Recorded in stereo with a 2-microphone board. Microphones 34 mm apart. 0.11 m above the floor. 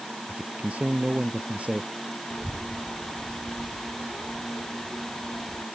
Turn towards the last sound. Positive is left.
turn(degrees=35)  # may be behind; listen again after turning